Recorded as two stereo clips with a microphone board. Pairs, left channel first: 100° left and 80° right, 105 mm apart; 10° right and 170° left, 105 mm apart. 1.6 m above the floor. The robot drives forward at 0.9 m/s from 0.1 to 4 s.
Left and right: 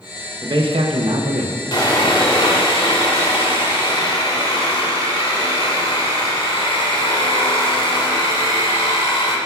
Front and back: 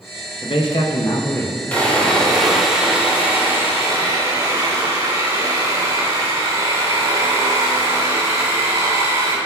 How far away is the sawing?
About 2.5 m.